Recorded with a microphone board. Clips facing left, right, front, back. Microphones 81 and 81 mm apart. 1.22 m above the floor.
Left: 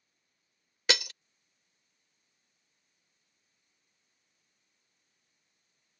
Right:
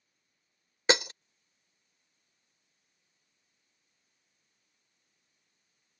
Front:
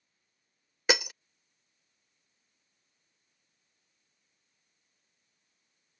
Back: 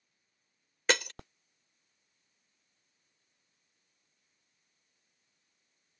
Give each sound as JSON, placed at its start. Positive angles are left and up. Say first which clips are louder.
{"t": 0.9, "sound": "breaking glass", "louder": "right 5 dB, front 1 dB", "azimuth_deg": -70}